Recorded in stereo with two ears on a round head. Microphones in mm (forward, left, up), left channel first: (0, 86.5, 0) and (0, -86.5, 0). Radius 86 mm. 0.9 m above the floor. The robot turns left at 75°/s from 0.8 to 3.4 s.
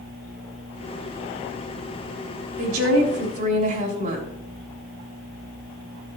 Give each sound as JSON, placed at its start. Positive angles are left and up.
{"t": 2.6, "sound": "a woman speaking", "azimuth_deg": -75, "distance_m": 4.5}